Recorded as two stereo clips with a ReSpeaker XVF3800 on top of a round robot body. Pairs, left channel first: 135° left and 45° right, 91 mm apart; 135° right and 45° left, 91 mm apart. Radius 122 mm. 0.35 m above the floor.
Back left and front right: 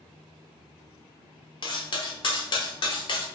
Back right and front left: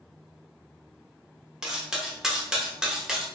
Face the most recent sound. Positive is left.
turn(degrees=130)